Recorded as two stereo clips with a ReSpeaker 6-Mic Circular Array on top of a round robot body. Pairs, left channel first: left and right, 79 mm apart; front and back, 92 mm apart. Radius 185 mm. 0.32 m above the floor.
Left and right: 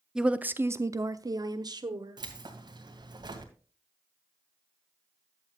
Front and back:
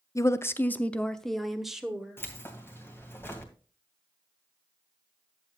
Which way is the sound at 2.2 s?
65° right.